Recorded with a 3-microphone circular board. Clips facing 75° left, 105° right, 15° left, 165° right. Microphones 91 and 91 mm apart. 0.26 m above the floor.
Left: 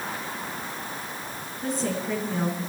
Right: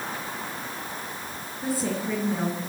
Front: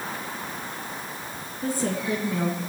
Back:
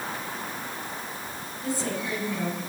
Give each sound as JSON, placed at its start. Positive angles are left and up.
{"t": 1.6, "sound": "a woman speaking", "azimuth_deg": -20, "distance_m": 3.5}